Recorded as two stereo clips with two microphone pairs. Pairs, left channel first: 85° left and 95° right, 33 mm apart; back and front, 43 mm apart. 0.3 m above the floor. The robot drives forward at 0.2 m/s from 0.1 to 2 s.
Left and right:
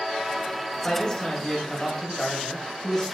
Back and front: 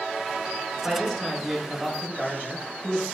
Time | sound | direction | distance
0.8 | a man speaking | 90° left | 1.1 m